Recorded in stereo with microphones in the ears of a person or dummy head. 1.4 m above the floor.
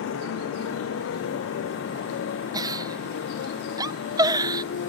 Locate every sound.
0.0 s a motorcycle: 80° left; by 4.9 s 70° left (ahead or behind)
2.5 s a giggle: 20° right (ahead or behind)